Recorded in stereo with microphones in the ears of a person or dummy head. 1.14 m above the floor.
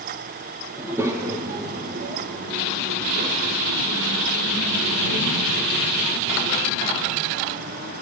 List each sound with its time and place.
0.8 s a child speaking: 10° right (ahead or behind), 1.5 m; by 7.9 s 90° right, 5 m